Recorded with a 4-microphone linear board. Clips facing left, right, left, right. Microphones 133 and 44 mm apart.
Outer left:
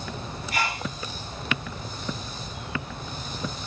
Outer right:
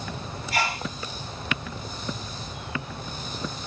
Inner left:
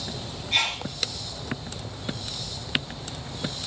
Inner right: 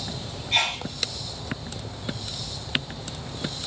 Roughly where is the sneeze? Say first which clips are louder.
Outer right 2 dB, inner right 1 dB; right.